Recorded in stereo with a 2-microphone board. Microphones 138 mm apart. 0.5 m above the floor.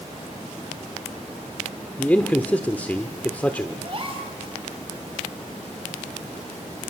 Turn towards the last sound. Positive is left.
turn(degrees=-45)  # may be behind; listen again after turning